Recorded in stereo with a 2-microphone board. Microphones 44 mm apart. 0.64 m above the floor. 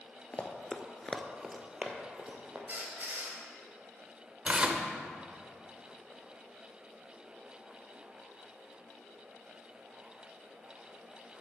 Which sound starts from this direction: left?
Running footsteps, at 0.3 s.